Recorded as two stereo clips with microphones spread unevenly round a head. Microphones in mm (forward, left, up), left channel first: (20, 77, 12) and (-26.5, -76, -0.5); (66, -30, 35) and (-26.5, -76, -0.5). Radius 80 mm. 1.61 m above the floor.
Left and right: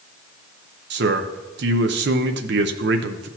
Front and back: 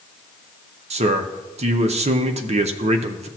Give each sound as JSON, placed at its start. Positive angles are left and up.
{"t": 0.9, "sound": "a man speaking", "azimuth_deg": -130, "distance_m": 0.7}